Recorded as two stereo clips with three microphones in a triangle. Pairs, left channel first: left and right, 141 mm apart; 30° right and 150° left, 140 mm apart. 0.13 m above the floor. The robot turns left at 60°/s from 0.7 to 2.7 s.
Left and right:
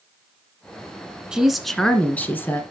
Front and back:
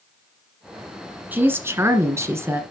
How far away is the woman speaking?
About 1.5 m.